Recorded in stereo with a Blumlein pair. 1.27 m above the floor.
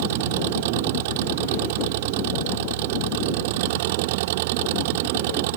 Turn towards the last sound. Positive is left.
turn(degrees=-50)